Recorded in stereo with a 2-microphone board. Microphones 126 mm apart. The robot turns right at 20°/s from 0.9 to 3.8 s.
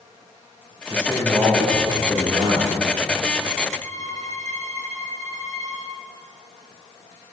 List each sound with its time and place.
0.9 s a man speaking: 170° right, 8 m; by 2.8 s 130° right, 8 m
3.8 s a violin: 70° right (ahead or behind), 5 m